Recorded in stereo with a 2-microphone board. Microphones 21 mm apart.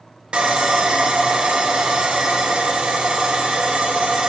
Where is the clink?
No clink in this recording.